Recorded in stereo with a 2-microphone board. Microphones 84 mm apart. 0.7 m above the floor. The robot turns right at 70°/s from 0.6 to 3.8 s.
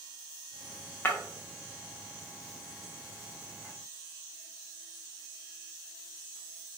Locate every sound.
1.1 s breaking glass: 25° left (ahead or behind), 0.6 m; by 1.2 s 35° left (ahead or behind), 0.6 m